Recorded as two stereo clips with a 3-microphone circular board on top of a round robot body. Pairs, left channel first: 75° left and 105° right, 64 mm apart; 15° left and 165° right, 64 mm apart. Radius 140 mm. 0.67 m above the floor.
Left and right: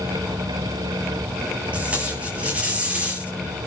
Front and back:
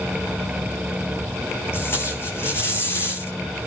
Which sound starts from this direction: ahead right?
Tape being pulled, at 1.7 s.